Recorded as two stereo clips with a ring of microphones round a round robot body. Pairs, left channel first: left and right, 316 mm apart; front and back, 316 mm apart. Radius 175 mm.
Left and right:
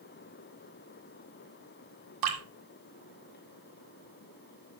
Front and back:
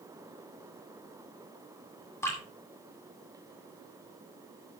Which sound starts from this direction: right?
Dripping, at 2.2 s.